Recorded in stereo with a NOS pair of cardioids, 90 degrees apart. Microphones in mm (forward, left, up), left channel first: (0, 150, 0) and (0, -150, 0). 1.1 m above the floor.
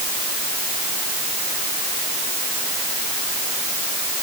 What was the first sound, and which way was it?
Only background noise.